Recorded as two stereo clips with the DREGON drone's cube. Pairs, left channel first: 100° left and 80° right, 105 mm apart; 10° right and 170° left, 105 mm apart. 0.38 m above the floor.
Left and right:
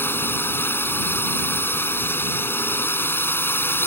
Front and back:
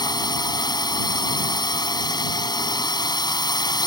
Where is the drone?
30° left.